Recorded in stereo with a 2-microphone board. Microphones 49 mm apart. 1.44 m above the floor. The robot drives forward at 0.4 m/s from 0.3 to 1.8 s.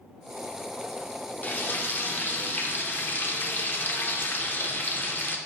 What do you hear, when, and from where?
1.4 s frying: 35° left (ahead or behind), 0.6 m; by 5.4 s 40° left (ahead or behind), 0.5 m